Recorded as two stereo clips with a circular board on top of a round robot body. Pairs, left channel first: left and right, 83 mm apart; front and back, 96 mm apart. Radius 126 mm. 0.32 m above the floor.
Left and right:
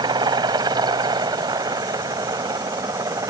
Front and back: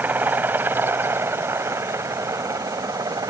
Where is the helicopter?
110° right; by 3.3 s 135° right.